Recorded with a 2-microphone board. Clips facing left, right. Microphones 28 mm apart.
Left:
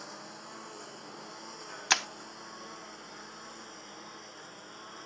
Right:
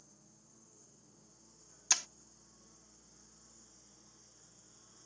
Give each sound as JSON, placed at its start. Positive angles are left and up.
{"t": 0.0, "sound": "a lawn mower", "side_deg": 75}
{"t": 1.9, "sound": "breaking glass", "side_deg": 40}